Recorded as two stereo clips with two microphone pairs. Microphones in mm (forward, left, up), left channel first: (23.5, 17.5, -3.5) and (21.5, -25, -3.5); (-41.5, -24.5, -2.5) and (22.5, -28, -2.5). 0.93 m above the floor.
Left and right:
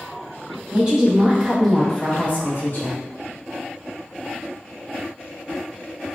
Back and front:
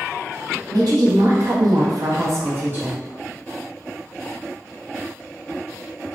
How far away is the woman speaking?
About 1.0 m.